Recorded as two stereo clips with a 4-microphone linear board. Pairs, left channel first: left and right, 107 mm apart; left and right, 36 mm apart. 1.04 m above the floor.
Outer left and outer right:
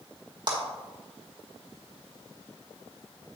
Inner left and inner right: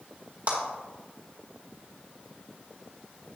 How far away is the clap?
About 3 m.